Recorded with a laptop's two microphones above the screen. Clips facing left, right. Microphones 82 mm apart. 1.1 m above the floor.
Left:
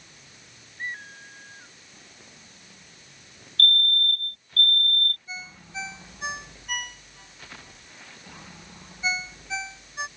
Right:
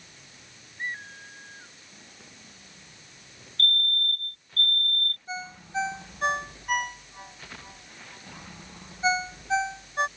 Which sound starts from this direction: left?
A fire alarm, at 3.6 s.